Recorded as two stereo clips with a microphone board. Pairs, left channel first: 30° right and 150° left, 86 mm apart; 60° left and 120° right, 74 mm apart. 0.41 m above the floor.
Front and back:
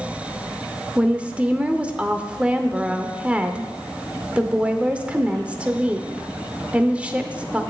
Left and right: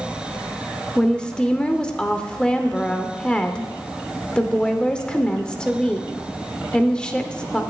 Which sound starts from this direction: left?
A woman speaking, at 1.0 s.